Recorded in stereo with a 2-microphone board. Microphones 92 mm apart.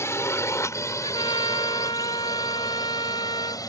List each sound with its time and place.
0.0 s a drone: 30° left (ahead or behind); by 3.7 s 40° left (ahead or behind)
1.0 s a trumpet: 65° left (ahead or behind)